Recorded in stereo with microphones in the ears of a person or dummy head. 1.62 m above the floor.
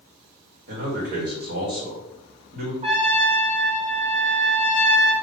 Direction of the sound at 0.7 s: 55° right (ahead or behind).